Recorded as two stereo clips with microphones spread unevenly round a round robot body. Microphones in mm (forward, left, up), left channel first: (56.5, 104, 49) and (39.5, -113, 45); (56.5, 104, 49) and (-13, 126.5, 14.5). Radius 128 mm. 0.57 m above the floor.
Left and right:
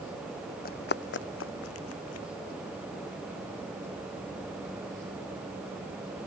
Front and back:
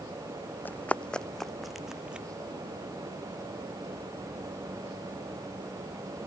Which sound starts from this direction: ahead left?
Running footsteps, at 0.7 s.